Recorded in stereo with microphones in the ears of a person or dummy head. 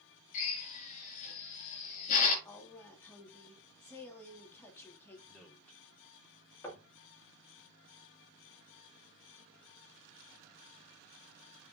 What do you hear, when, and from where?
0.3 s a drill: 45° left (ahead or behind), 4.5 m
2.5 s a woman speaking: 15° left (ahead or behind), 3 m
5.3 s a man speaking: 5° left (ahead or behind), 2 m
6.6 s knocking: 15° left (ahead or behind), 3 m